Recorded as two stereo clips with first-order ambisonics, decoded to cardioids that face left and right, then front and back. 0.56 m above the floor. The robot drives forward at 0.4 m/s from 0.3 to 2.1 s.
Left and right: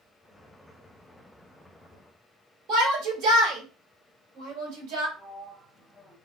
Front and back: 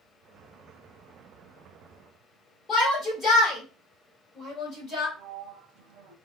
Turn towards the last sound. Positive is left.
turn(degrees=-170)